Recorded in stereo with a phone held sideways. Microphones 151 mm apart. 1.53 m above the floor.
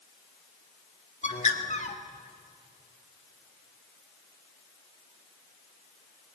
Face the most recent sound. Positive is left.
turn(degrees=50)  # may be behind; listen again after turning